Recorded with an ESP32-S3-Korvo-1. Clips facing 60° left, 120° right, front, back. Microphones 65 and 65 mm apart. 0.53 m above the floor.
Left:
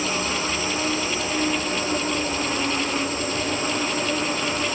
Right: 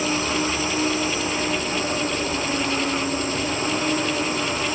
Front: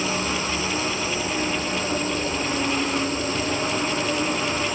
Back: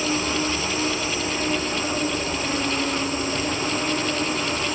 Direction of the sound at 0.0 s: 110° right.